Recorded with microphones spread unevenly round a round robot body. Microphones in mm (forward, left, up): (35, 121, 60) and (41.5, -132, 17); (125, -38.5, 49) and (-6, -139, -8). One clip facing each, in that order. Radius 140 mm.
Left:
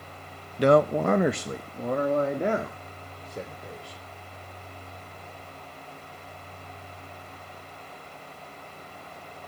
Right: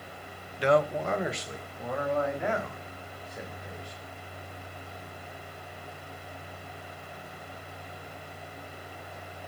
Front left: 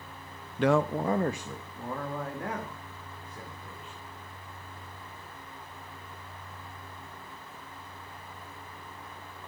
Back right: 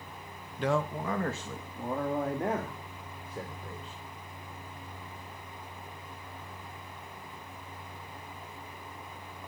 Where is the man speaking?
50° left, 0.8 m; by 4.0 s 160° left, 3.5 m.